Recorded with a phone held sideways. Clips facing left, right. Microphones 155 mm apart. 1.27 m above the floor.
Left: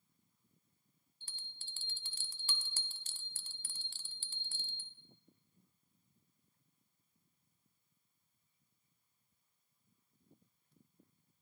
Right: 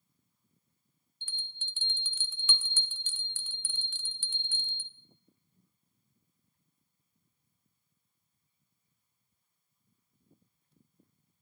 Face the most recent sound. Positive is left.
turn(degrees=35)  # may be behind; listen again after turning